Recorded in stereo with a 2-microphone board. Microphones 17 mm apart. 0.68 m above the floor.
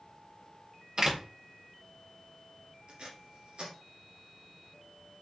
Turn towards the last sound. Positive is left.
turn(degrees=-80)